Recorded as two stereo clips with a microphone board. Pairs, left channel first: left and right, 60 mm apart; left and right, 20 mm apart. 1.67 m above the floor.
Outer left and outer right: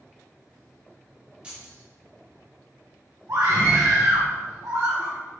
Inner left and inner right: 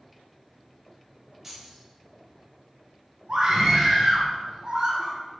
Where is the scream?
55° right (ahead or behind), 1.3 m.